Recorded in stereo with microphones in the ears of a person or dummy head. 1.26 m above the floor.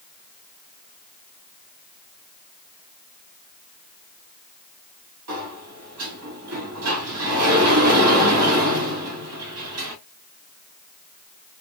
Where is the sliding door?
75° right (ahead or behind), 1.5 m.